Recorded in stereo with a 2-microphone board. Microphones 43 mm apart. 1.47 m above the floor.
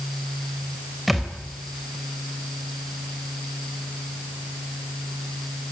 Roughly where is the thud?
Centre.